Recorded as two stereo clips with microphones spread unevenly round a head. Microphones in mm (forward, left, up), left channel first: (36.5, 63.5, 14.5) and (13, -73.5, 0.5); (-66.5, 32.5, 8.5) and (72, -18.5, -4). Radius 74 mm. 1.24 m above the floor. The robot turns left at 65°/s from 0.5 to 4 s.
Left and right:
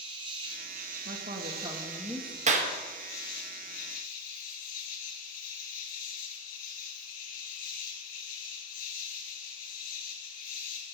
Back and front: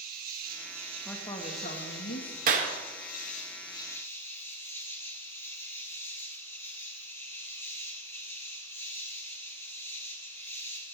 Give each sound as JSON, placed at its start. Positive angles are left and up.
{"t": 0.0, "sound": "an insect", "azimuth_deg": -45, "distance_m": 2.5}
{"t": 1.1, "sound": "a woman speaking", "azimuth_deg": -120, "distance_m": 1.8}
{"t": 2.5, "sound": "a clap", "azimuth_deg": -55, "distance_m": 1.2}